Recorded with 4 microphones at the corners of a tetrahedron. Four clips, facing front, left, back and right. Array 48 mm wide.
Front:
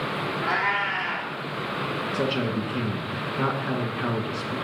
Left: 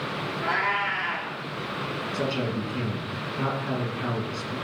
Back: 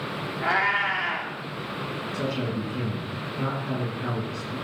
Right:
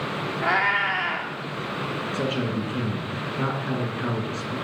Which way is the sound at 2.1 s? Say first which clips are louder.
Right 1 dB, front 2 dB; 15° right.